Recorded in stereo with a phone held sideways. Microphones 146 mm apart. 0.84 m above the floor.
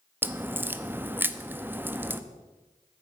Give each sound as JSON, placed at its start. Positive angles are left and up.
{"t": 0.2, "sound": "a crack", "side_deg": -15, "distance_m": 0.6}